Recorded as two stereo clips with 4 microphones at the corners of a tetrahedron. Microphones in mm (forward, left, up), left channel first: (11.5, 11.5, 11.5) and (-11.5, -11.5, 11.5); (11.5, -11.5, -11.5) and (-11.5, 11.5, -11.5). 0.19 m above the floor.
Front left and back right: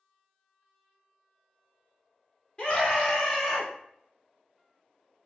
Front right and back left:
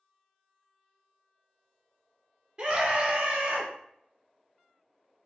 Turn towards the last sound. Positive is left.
turn(degrees=120)